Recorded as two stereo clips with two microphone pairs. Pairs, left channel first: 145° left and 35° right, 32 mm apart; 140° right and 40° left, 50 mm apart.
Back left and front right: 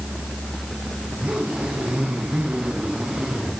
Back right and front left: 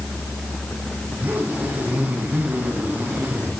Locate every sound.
1.1 s a zipper: 5° left, 7 m